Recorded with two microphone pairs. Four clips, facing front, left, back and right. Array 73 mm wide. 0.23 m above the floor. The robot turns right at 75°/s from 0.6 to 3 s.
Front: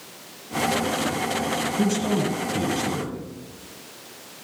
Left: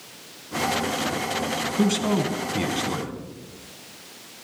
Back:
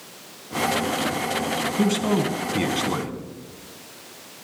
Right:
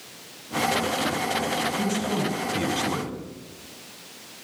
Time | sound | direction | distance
1.8 | a man speaking | 115° left | 1.9 m